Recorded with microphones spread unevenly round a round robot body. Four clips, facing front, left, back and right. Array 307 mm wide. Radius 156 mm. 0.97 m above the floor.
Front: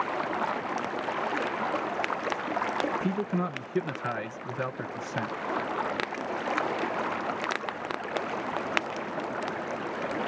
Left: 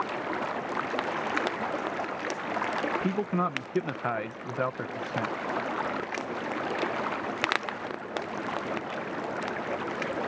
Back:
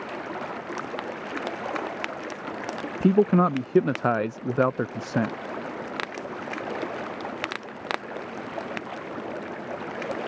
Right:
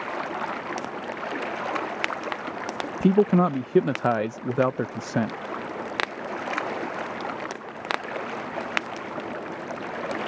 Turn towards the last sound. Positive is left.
turn(degrees=-125)